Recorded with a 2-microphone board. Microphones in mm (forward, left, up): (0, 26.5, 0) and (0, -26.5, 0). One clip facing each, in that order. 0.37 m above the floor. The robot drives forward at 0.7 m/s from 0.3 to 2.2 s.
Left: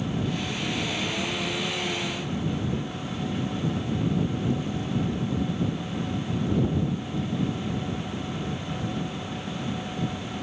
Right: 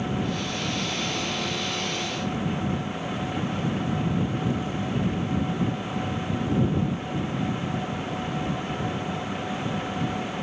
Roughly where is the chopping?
No chopping in this recording.